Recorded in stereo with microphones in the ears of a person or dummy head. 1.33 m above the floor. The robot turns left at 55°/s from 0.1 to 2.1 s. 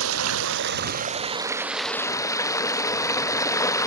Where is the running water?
85° right; by 3.9 s 165° left.